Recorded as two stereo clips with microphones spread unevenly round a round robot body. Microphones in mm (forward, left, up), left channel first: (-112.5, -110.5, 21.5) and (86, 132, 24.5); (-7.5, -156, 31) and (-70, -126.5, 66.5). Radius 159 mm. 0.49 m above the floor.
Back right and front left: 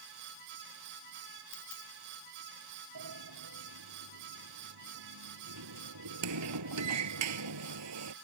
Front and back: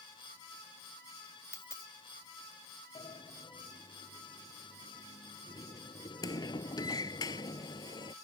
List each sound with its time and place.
1.5 s a dropped coin: 75° right
3.0 s a sliding door: 10° left